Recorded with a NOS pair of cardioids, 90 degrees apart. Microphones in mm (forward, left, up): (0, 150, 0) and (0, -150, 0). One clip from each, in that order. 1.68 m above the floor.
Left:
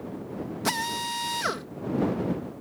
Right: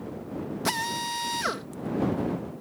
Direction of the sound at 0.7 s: 5° left.